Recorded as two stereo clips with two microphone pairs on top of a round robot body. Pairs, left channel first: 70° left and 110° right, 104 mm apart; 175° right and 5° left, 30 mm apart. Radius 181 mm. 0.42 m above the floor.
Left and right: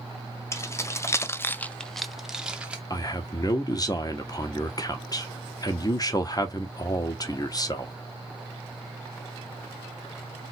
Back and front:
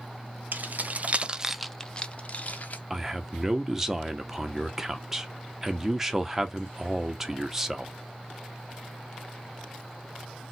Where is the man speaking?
85° left, 0.9 m.